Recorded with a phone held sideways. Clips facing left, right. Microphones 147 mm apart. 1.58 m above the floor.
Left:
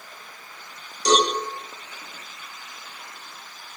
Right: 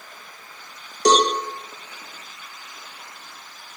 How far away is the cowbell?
About 2.5 m.